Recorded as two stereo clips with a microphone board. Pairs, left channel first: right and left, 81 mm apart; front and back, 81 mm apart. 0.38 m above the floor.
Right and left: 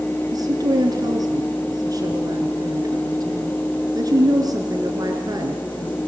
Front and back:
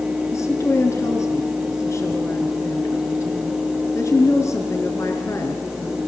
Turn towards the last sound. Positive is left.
turn(degrees=50)